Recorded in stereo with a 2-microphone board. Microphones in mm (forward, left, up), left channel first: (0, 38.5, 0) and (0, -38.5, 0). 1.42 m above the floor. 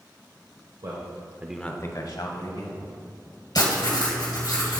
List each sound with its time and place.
0.8 s a man speaking: 65° right (ahead or behind), 1.1 m; by 2.9 s 75° left (ahead or behind), 2.0 m
3.5 s writing: 65° left (ahead or behind), 2.5 m